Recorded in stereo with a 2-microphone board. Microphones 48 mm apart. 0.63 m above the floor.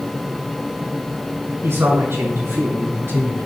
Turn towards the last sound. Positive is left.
turn(degrees=-55)  # may be behind; listen again after turning